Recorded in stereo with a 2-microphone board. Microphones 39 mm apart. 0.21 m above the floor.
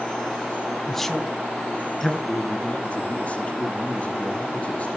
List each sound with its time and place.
0.9 s a man speaking: 10° left (ahead or behind), 1.7 m
2.3 s a man speaking: 35° left (ahead or behind), 6 m